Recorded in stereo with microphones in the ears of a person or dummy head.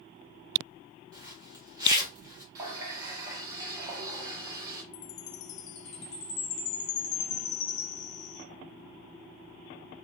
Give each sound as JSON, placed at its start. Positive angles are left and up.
{"t": 1.1, "sound": "a zipper", "side_deg": -20, "distance_m": 0.7}
{"t": 2.5, "sound": "a running tap", "side_deg": -20, "distance_m": 0.6}
{"t": 4.9, "sound": "a chime", "side_deg": 70, "distance_m": 0.5}